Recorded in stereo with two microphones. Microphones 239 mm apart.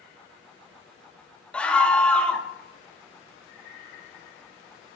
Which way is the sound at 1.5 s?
5° left (ahead or behind).